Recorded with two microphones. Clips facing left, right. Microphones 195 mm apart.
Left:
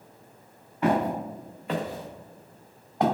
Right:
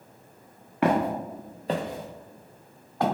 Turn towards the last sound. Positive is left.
turn(degrees=20)  # may be behind; listen again after turning